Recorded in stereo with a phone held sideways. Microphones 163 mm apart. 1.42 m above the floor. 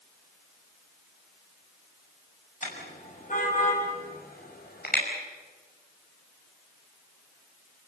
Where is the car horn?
45° left (ahead or behind), 6.5 m; by 5.0 s 65° left (ahead or behind), 5 m.